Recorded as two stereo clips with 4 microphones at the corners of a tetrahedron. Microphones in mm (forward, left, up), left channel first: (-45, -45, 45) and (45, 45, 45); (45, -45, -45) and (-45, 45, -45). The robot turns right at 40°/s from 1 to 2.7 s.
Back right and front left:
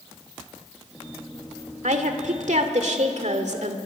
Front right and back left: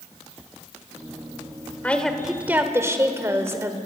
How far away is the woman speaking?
About 1.9 m.